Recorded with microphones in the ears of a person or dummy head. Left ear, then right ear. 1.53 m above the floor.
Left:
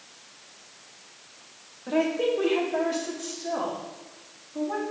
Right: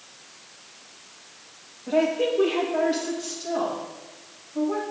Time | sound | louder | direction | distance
1.9 | a woman speaking | right 2 dB | 45° left (ahead or behind) | 1.9 m